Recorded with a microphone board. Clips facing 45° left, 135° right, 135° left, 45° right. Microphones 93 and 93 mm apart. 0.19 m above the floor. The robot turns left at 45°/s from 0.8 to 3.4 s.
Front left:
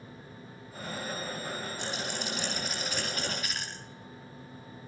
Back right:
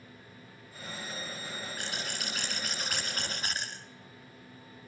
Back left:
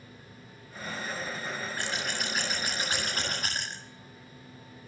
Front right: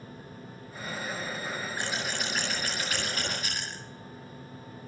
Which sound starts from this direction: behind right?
Scissors, at 1.8 s.